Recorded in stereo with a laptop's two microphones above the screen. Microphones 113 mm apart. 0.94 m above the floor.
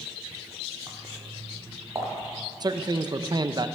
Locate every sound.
0.9 s footsteps: 30° right (ahead or behind), 2 m; by 2.1 s 25° right (ahead or behind), 4 m
2.6 s a man speaking: 40° right (ahead or behind), 0.6 m